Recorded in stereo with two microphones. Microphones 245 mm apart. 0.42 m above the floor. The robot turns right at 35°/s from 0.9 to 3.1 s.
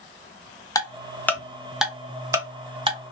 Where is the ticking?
15° left (ahead or behind), 0.6 m; by 3.0 s 25° right (ahead or behind), 0.6 m.